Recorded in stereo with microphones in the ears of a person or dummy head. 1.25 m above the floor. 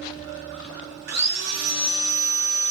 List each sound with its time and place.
1.1 s sawing: 55° right (ahead or behind), 0.5 m